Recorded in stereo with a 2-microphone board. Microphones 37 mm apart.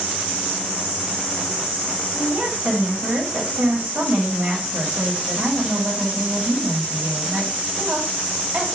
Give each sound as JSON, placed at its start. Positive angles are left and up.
{"t": 2.1, "sound": "a woman speaking", "side_deg": -60, "distance_m": 1.6}